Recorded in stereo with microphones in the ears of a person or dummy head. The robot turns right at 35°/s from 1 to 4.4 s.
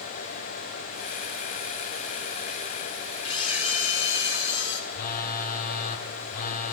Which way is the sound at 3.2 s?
30° left.